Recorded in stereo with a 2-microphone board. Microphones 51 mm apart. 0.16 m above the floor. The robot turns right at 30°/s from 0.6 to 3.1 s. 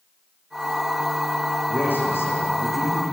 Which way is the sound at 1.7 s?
40° left.